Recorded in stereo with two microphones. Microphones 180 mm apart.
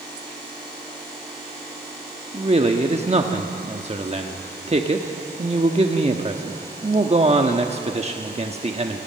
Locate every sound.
2.3 s a man speaking: 35° right (ahead or behind), 1.1 m